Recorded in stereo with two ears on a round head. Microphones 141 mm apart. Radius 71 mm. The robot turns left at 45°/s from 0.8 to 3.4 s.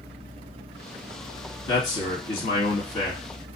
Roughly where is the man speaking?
Left.